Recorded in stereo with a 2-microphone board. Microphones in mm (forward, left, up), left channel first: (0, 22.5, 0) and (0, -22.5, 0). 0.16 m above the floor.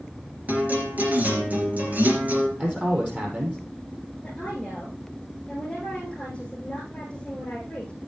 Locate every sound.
0.5 s a guitar: 40° right (ahead or behind), 3 m
2.6 s a man speaking: 30° right (ahead or behind), 5 m
4.2 s a woman speaking: 20° left (ahead or behind), 8.5 m